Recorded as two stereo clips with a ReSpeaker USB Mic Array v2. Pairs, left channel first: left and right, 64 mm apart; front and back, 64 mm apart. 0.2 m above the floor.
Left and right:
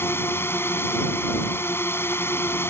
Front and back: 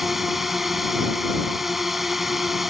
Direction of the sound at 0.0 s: 95° left.